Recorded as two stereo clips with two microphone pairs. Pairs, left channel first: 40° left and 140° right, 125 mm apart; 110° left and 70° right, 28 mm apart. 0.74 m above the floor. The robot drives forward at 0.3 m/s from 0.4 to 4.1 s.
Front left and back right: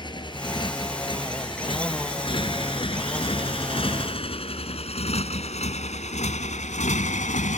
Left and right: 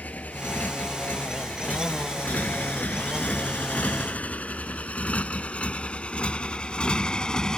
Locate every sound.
0.0 s a motorcycle: 95° left; by 7.6 s 45° left